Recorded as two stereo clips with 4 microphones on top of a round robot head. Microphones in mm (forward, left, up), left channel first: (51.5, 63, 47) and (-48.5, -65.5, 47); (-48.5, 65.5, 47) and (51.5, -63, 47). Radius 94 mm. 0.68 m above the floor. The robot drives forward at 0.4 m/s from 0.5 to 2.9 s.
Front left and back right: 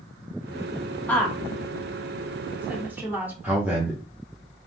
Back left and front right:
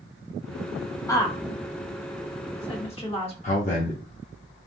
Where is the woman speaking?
110° left, 1.1 m; by 3.3 s 160° left, 1.4 m.